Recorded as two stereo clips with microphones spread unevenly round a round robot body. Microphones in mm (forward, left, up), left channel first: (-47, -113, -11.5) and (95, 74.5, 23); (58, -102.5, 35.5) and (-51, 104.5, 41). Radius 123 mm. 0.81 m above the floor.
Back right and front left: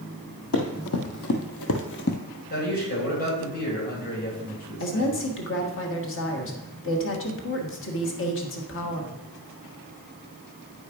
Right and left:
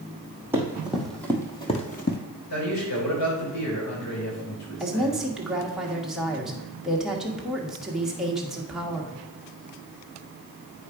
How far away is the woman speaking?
About 1.6 m.